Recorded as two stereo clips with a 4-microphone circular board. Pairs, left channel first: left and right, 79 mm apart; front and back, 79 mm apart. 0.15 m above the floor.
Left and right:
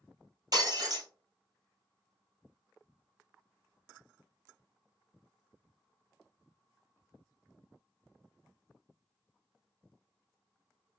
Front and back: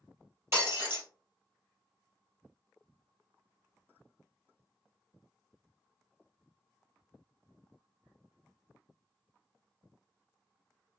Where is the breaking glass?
125° right, 2.5 m.